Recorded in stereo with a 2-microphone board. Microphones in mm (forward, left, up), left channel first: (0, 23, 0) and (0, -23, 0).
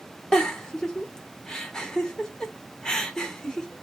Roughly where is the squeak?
No squeak in this recording.